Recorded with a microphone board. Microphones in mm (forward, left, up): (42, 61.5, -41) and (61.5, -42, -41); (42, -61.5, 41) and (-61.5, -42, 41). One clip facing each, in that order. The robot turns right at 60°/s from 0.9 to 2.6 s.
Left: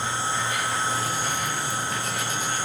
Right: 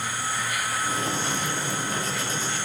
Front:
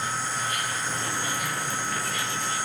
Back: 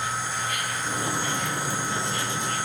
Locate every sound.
0.0 s an insect: 40° left, 5 m; by 2.6 s 140° left, 5 m